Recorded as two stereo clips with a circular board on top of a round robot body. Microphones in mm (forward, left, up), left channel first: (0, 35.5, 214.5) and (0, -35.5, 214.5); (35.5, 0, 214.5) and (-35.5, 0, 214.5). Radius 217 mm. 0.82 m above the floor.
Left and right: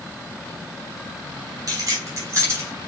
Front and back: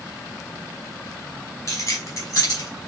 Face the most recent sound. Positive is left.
turn(degrees=-30)